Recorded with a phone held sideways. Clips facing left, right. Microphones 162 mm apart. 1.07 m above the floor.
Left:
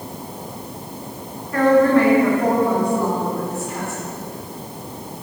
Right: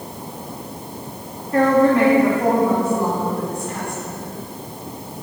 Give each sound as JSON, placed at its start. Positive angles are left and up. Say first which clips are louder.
{"t": 1.5, "sound": "a woman speaking", "louder": "left 1 dB", "side_deg": -30, "distance_m": 1.7}